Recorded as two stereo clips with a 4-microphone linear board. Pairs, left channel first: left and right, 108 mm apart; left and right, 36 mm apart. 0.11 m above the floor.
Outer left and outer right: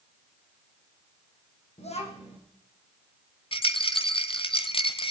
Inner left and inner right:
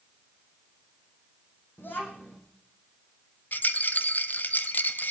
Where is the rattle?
50° left (ahead or behind), 0.6 m.